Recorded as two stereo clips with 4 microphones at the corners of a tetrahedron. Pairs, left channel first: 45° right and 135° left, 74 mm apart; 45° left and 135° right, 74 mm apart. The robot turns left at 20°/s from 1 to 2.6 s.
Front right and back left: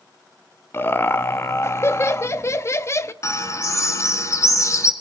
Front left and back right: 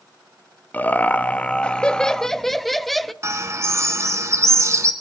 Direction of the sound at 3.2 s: 85° right.